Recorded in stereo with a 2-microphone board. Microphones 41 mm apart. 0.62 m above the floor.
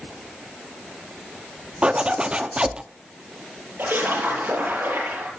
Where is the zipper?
30° right (ahead or behind), 0.8 m.